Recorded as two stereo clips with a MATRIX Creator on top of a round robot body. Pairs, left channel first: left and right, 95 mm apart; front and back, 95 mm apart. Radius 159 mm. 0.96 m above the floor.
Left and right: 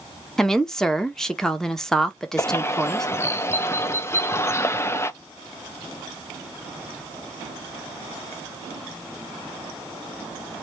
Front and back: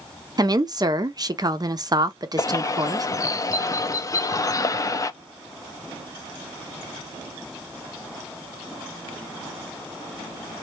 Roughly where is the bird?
Ahead left.